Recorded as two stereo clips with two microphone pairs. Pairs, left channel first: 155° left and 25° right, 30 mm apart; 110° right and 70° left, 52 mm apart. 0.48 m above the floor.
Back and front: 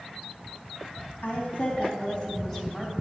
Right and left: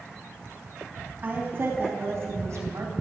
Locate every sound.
1.2 s a woman speaking: 125° left, 3 m; by 2.9 s 80° left, 2.5 m